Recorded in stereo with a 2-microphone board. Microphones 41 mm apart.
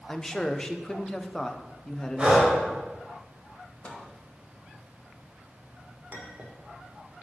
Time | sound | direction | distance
0.1 | a man speaking | 15° left (ahead or behind) | 0.5 m
2.2 | breathing | 15° right (ahead or behind) | 2 m
3.8 | a microwave | 30° left (ahead or behind) | 0.9 m
6.1 | a clink | 45° right (ahead or behind) | 1.2 m